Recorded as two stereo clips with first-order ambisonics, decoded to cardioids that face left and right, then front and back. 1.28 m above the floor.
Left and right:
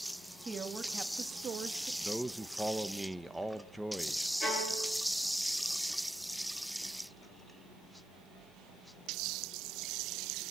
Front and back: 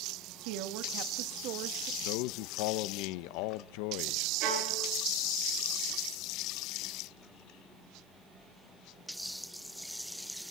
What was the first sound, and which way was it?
A woman speaking, 170° right.